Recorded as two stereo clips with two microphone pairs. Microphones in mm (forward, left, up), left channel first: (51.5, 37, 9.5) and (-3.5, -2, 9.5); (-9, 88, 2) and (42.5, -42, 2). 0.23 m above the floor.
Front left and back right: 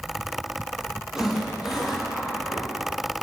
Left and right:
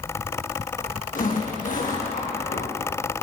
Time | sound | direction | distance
1.1 | a zipper | 130° left | 9 m